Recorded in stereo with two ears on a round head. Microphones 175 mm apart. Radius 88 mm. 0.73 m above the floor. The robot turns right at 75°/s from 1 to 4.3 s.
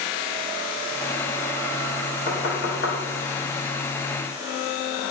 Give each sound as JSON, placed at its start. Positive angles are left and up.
{"t": 2.3, "sound": "knocking", "side_deg": 45, "distance_m": 0.9}